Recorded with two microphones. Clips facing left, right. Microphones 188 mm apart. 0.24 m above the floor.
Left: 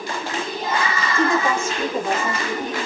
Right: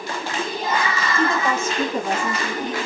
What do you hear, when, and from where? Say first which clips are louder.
1.1 s a woman speaking: left 2 dB; 15° left (ahead or behind), 1.9 m; by 2.8 s centre (ahead or behind), 2.5 m